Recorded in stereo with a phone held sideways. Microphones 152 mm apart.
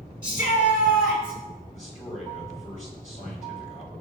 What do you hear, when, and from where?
0.2 s a shout: 60° left (ahead or behind), 4.5 m
1.7 s a man speaking: 50° left (ahead or behind), 4 m